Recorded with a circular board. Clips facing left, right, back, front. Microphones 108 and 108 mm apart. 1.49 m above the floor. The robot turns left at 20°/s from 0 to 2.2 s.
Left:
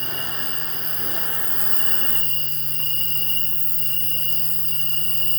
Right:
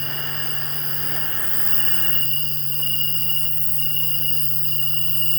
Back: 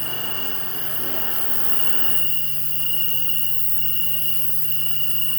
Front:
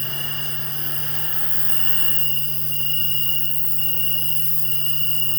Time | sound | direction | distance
0.0 | an insect | 170° right | 1.5 m